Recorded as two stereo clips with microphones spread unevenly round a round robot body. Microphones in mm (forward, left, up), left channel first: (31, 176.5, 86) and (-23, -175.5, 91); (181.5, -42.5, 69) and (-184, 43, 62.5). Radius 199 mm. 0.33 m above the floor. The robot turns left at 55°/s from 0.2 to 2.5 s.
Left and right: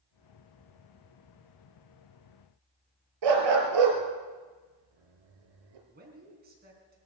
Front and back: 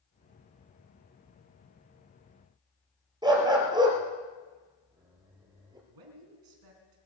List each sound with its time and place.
3.2 s a dog barking: 115° right, 2.5 m
5.9 s a man speaking: 165° right, 4 m